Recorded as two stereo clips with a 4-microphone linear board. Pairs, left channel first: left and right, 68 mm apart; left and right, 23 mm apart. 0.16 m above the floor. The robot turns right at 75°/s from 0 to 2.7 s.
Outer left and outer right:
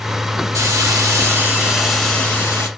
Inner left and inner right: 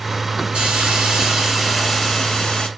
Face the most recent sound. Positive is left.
turn(degrees=60)